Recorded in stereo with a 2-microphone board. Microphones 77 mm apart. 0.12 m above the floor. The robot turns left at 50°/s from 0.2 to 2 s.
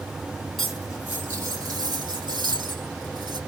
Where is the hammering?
No hammering in this recording.